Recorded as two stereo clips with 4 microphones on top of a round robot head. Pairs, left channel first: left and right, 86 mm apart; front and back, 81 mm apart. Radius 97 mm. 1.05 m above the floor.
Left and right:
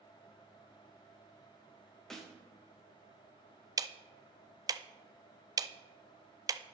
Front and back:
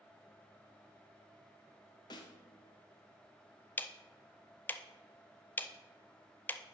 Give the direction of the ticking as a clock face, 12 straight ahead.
2 o'clock.